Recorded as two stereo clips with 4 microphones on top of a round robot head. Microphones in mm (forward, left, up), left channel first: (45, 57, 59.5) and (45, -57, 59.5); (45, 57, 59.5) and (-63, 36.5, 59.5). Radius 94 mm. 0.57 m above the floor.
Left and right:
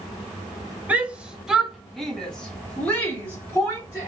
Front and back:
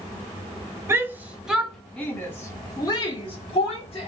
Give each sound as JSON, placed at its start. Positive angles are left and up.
{"t": 0.9, "sound": "a shout", "azimuth_deg": -150, "distance_m": 1.1}